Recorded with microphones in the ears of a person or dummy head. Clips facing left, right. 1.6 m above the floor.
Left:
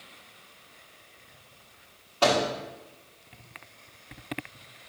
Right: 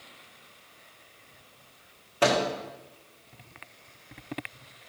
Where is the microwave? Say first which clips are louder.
Even; 25° right (ahead or behind), 1.1 m.